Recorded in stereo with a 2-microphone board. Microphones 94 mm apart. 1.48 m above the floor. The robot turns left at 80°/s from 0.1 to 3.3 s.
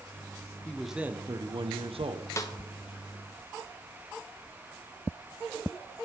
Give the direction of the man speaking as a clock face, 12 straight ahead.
11 o'clock.